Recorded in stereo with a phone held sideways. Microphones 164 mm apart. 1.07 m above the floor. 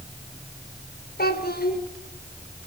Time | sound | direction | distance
1.2 | a child speaking | 70° left (ahead or behind) | 3 m